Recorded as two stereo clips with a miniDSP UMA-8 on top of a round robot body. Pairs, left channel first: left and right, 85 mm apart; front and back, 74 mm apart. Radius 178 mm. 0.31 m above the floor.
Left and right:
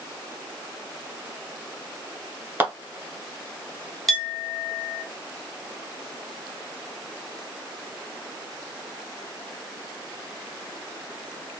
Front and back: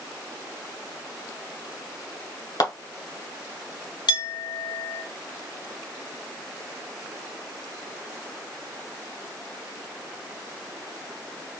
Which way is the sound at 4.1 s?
Straight ahead.